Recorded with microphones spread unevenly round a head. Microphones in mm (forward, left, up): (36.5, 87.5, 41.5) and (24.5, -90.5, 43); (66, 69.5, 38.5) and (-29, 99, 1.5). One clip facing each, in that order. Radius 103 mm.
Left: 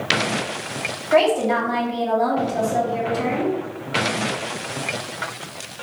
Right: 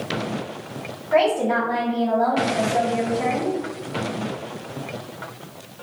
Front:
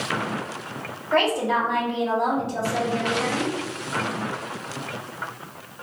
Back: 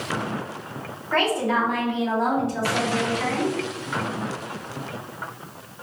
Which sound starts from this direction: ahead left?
A woman speaking, at 1.1 s.